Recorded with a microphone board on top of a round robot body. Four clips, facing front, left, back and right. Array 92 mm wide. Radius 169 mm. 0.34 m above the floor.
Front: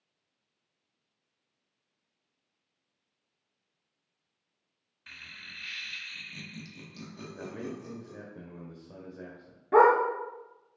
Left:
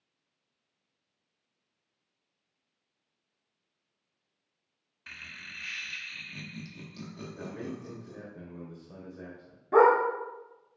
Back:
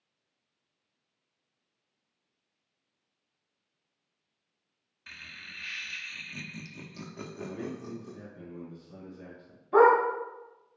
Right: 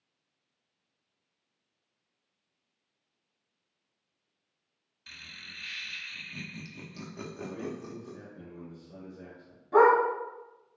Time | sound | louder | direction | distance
5.1 | laughter | left 3 dB, back 1 dB | 105° left | 1.5 m
7.3 | a man speaking | right 1 dB, back 1 dB | 30° left | 1.9 m
9.7 | a dog barking | even, even | 30° left | 3 m